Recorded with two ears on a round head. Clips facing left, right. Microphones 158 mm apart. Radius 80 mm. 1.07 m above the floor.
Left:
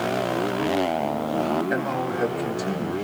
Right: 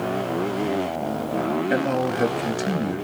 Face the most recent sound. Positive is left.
turn(degrees=-30)  # may be behind; listen again after turning